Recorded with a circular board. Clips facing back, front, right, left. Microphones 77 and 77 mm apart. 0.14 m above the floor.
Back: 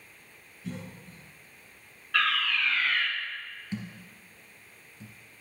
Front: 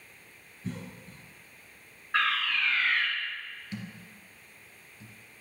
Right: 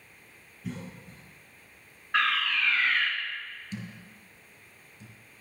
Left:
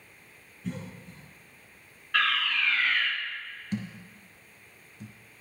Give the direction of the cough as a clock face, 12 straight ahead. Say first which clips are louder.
Front 1 dB, left 1 dB; 12 o'clock.